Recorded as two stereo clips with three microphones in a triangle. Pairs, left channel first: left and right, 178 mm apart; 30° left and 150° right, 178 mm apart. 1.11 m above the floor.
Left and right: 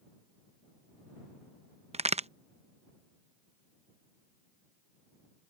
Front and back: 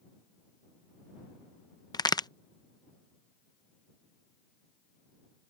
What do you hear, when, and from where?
1.9 s a crack: 40° right